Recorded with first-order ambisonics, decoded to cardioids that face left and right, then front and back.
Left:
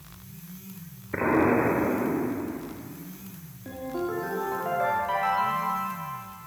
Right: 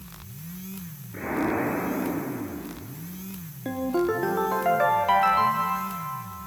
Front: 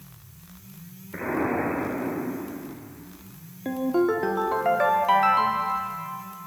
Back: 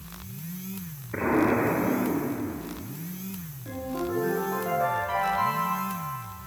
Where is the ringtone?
40° right, 0.8 m.